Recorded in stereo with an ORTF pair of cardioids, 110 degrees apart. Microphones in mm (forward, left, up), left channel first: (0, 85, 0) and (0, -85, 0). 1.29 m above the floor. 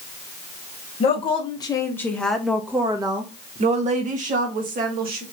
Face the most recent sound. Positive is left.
turn(degrees=-65)